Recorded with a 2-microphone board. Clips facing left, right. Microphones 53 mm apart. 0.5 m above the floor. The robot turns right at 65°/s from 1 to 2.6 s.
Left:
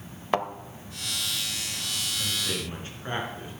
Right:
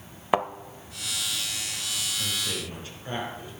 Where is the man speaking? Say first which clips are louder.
Left 2 dB; 10° left (ahead or behind), 5.5 m; by 3.5 s 35° left (ahead or behind), 5.5 m.